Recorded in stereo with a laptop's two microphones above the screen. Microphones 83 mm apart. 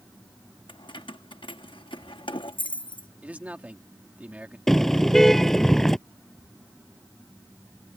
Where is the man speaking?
15° right (ahead or behind).